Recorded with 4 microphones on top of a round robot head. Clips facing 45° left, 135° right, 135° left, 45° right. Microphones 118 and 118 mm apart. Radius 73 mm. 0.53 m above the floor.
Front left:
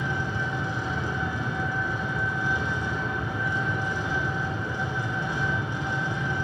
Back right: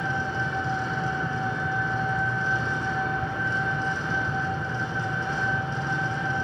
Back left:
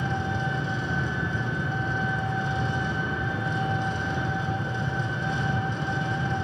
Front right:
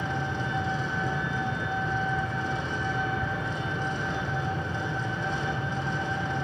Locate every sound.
0.0 s an engine running: 120° left, 5.5 m